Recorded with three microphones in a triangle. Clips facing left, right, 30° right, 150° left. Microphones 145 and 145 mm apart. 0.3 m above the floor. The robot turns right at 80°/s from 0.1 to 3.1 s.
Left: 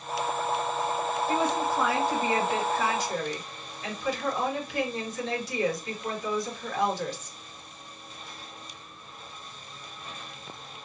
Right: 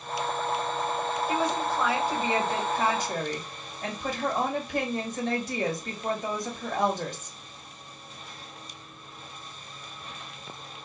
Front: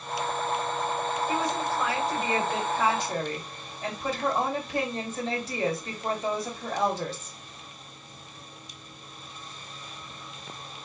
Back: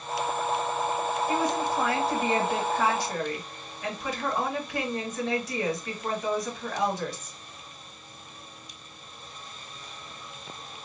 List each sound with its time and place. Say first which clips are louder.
1.3 s a woman speaking: left 1 dB, back 2 dB; 130° left, 1.6 m; by 7.4 s 85° right, 1.6 m